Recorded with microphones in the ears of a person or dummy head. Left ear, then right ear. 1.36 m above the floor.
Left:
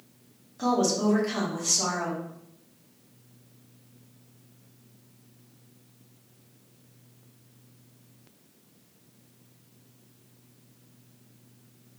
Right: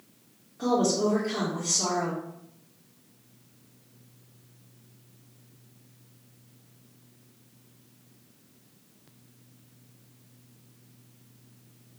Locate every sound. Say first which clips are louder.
0.6 s a woman speaking: even; 80° left, 1.8 m